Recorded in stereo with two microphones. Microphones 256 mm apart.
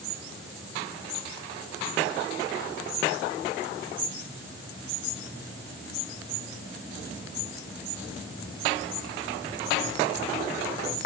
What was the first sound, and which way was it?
Only background noise.